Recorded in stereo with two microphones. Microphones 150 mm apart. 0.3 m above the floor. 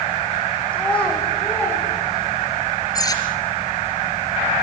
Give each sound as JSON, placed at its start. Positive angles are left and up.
{"t": 0.7, "sound": "a child speaking", "side_deg": 10, "distance_m": 10.0}
{"t": 3.0, "sound": "cutlery clinking", "side_deg": 25, "distance_m": 3.5}